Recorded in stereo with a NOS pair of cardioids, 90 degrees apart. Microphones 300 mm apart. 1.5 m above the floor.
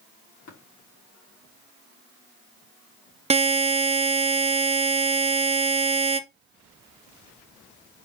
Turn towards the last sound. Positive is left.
turn(degrees=-20)